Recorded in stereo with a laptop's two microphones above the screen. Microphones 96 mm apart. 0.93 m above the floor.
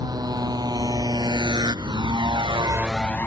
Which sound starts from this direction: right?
A motorcycle, at 0.0 s.